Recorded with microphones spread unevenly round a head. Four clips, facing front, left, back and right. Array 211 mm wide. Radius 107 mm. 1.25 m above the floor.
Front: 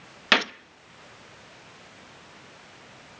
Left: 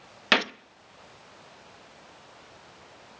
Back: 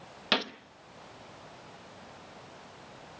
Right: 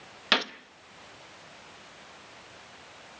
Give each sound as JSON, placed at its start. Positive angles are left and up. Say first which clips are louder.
{"t": 0.3, "sound": "a gunshot", "louder": "left 3 dB, front 7 dB", "azimuth_deg": 45, "distance_m": 0.5}